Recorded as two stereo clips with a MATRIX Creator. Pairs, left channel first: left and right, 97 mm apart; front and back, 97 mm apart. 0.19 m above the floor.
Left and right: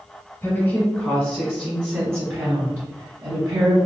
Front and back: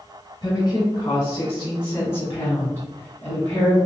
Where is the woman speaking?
35° left, 1.3 m; by 3.8 s 70° right, 1.7 m.